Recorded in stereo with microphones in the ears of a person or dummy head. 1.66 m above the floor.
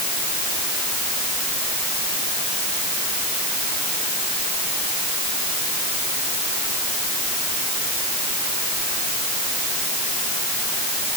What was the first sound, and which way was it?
Only background noise.